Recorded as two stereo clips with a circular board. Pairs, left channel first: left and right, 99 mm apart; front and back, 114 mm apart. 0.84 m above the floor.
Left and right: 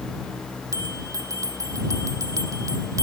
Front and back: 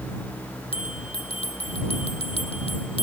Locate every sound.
0.7 s a bell: 35° right